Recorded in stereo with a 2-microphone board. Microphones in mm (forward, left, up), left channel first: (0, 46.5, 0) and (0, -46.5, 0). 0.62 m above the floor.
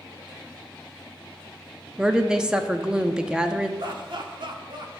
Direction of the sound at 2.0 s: 10° right (ahead or behind).